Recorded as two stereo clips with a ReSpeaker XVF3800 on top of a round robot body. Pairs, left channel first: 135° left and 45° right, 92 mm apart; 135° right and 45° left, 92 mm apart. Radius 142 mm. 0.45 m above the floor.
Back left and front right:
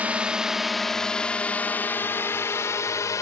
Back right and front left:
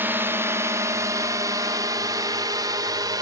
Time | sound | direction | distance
0.0 | a drone | 10° left | ?